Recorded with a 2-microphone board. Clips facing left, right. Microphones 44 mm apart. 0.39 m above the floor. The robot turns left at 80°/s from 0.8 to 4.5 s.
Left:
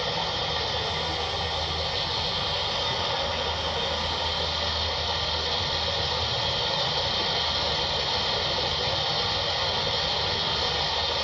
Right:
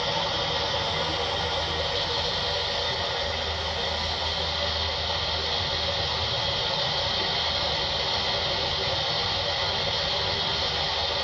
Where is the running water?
60° right, 2.5 m; by 11.2 s 5° left, 2.5 m.